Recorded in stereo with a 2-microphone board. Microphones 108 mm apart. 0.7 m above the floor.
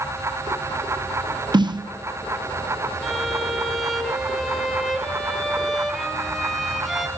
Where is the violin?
Centre (ahead or behind), 1.8 m.